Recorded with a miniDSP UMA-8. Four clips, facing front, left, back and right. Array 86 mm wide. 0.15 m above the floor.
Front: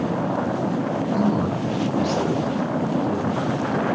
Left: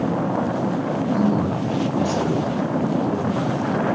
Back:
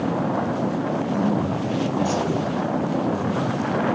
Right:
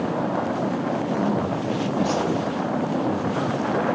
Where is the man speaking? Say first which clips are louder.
Left 5 dB, front 2 dB; 25° left, 1.9 m; by 3.9 s 80° right, 2 m.